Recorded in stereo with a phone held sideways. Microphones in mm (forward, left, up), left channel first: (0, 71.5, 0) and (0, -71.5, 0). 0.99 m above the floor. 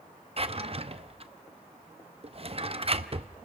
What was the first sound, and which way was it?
A drawer, 45° right (ahead or behind).